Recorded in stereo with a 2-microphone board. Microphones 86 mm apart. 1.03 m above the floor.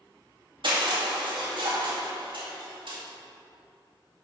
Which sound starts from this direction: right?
Crushing, at 0.6 s.